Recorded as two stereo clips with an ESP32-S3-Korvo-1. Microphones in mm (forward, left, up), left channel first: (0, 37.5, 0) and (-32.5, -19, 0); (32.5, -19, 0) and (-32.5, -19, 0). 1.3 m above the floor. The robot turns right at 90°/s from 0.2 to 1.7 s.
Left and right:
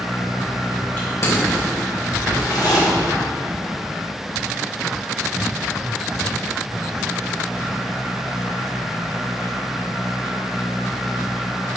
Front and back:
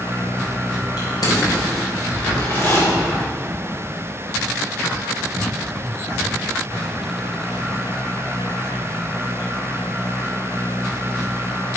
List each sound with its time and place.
1.0 s crushing: 5° right, 4 m; by 2.8 s 60° left, 4 m